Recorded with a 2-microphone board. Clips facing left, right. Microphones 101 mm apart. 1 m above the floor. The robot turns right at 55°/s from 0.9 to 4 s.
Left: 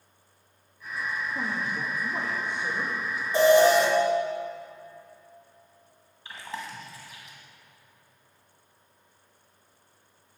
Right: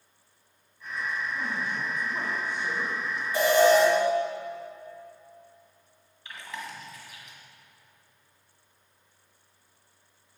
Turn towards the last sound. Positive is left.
turn(degrees=30)  # may be behind; listen again after turning